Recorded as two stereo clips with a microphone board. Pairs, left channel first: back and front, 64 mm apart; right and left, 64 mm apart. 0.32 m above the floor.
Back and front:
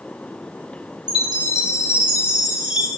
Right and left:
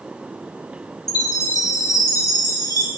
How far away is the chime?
About 4 m.